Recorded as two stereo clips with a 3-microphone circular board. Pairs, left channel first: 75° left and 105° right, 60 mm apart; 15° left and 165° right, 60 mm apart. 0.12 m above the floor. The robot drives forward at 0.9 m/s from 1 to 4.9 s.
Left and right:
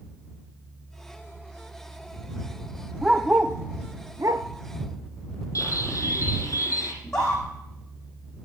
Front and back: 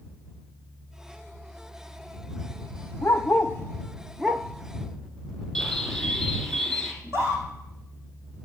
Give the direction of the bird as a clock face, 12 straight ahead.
9 o'clock.